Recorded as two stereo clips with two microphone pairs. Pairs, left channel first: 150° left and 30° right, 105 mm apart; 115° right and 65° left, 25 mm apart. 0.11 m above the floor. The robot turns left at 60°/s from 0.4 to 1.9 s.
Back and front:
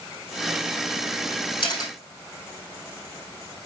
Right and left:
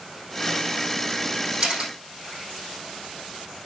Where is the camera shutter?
110° left, 3.5 m; by 1.9 s 95° left, 3.5 m.